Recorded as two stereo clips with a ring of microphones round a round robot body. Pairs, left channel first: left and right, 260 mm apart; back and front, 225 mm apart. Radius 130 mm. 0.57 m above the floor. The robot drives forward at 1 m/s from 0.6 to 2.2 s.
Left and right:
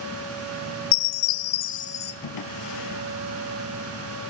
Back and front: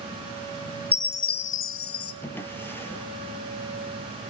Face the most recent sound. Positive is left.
turn(degrees=100)